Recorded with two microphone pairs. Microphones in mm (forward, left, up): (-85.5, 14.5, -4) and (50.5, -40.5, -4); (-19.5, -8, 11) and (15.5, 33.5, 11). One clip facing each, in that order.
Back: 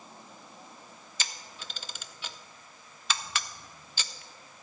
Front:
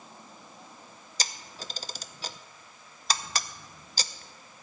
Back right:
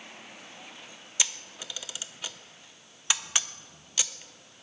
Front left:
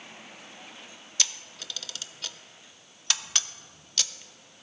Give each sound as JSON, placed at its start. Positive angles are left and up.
{"t": 1.2, "sound": "a camera shutter", "azimuth_deg": -60, "distance_m": 0.5}